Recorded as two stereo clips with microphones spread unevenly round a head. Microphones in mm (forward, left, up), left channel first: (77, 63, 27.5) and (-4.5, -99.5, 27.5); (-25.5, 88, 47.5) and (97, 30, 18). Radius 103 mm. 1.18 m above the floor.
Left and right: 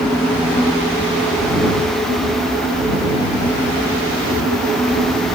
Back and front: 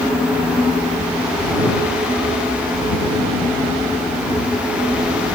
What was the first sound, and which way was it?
Only background noise.